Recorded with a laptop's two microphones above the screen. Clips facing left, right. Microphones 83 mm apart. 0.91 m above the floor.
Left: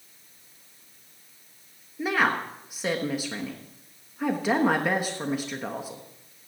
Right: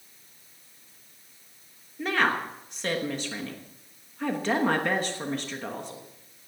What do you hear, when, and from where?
2.0 s a woman speaking: 10° left (ahead or behind), 1.1 m